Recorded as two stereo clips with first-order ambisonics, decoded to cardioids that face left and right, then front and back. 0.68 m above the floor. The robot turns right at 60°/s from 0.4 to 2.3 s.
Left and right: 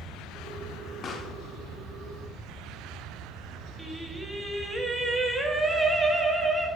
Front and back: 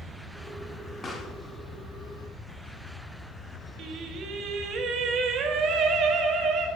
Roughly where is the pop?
Ahead left.